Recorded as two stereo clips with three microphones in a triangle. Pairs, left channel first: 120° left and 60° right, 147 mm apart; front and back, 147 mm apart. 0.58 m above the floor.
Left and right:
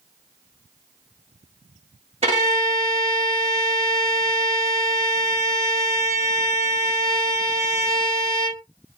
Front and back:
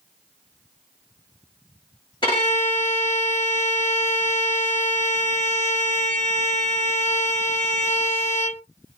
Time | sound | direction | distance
2.2 | a violin | 40° right | 1.8 m